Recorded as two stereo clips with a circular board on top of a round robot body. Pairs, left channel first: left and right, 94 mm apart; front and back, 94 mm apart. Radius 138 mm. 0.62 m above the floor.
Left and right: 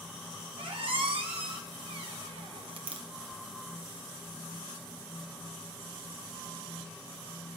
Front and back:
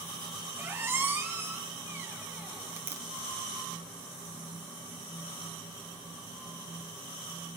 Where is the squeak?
115° right, 1.1 m.